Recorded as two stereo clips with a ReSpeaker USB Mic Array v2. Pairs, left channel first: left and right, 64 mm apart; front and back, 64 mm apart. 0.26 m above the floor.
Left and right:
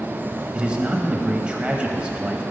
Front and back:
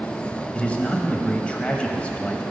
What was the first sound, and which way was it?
A man speaking, 40° right.